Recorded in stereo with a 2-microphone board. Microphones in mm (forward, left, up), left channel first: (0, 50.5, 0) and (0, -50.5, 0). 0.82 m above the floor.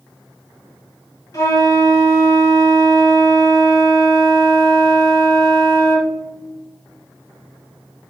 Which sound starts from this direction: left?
A flute, at 1.3 s.